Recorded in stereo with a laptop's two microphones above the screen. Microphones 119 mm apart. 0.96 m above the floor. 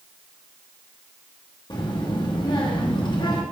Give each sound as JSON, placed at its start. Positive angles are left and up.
{"t": 1.7, "sound": "a child speaking", "side_deg": 40, "distance_m": 1.2}